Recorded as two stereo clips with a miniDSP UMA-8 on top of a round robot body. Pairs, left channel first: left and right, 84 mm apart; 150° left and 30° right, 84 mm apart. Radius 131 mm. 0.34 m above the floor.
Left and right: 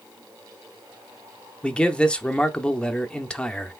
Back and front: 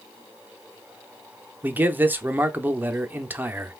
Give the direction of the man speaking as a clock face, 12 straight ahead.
11 o'clock.